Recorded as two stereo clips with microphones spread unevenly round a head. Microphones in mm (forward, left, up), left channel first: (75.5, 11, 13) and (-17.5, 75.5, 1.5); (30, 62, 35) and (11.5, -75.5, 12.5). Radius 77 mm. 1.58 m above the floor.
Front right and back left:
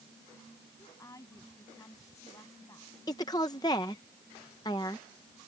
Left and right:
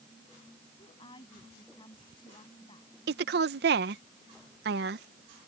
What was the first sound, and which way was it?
A woman speaking, 25° left.